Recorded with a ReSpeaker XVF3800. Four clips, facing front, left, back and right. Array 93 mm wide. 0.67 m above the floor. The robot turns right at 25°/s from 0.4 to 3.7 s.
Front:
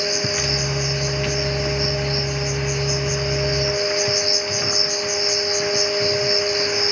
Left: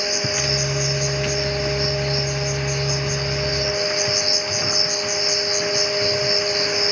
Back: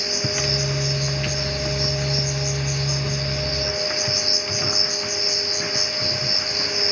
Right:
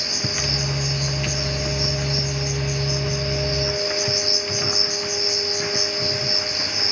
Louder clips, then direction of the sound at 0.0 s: Left 4 dB, front 3 dB; 5° left.